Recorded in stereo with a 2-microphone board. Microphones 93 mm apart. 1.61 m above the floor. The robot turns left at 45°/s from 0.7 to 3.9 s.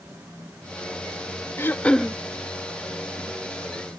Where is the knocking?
No knocking in this recording.